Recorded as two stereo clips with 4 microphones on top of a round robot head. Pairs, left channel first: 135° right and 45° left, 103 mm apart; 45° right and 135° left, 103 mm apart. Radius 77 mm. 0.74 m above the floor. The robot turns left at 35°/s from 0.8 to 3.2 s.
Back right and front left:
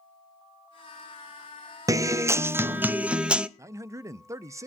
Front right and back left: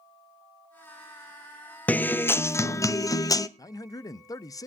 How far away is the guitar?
About 0.6 m.